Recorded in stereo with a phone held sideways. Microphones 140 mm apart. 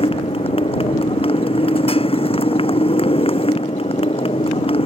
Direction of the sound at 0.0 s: 40° left (ahead or behind).